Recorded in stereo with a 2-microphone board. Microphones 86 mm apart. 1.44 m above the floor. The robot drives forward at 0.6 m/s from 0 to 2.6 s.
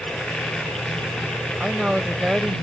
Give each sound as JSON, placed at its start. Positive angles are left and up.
{"t": 1.6, "sound": "a woman speaking", "side_deg": -5}